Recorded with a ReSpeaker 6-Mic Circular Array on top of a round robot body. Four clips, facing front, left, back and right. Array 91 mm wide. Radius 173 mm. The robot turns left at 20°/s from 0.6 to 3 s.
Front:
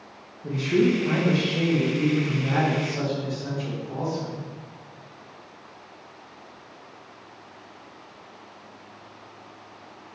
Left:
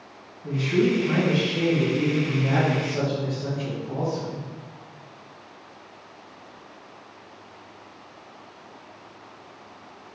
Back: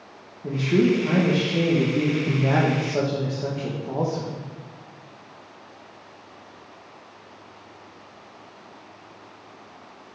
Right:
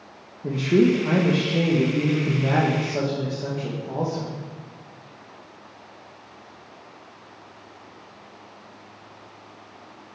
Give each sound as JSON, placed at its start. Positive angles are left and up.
{"t": 0.4, "sound": "a man speaking", "azimuth_deg": -105, "distance_m": 1.3}